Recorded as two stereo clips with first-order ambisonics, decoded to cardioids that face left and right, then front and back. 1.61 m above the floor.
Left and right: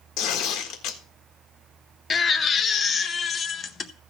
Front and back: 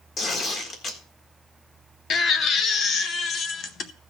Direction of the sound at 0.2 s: 55° left.